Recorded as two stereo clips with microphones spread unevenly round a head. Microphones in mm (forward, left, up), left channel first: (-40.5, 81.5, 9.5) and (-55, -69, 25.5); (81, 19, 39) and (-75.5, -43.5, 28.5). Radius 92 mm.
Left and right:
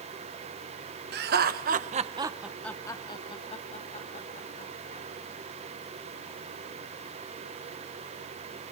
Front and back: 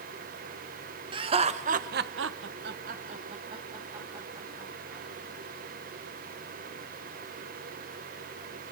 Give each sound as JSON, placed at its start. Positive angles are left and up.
{"t": 1.1, "sound": "laughter", "azimuth_deg": -95, "distance_m": 1.7}